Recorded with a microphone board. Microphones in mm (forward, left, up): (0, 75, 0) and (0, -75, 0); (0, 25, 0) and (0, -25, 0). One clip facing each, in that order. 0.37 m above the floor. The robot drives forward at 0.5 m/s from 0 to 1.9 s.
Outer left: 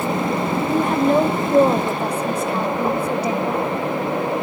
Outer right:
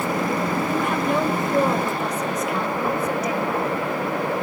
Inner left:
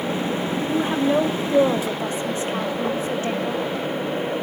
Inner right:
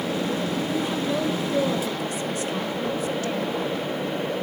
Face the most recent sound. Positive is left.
turn(degrees=30)  # may be behind; listen again after turning